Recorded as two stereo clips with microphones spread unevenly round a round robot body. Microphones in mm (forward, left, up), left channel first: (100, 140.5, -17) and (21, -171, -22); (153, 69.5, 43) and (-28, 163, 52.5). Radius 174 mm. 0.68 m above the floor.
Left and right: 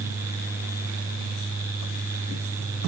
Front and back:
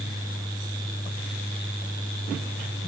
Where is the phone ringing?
No phone ringing in this recording.